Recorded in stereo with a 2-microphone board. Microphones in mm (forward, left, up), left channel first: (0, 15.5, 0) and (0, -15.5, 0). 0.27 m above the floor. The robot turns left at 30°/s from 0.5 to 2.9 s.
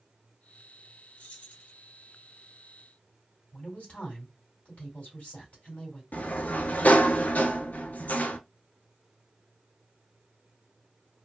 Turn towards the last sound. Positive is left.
turn(degrees=55)  # may be behind; listen again after turning